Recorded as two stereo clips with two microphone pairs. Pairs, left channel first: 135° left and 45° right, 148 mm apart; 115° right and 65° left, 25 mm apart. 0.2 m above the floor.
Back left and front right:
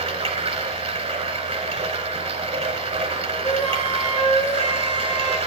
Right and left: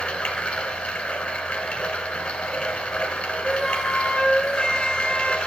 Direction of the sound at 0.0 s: 85° right.